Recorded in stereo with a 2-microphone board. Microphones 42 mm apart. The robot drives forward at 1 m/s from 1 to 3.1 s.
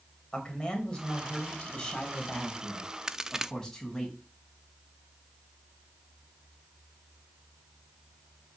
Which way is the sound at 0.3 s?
25° left (ahead or behind).